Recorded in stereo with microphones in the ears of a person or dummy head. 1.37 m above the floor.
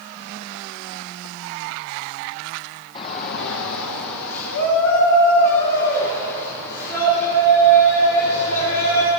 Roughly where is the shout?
Left.